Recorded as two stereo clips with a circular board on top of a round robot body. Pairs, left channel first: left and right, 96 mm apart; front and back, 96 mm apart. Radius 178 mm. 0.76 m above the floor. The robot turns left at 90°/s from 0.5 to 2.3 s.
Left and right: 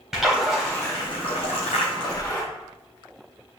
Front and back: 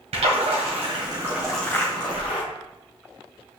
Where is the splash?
175° right, 1.4 m; by 2.4 s 20° left, 1.4 m.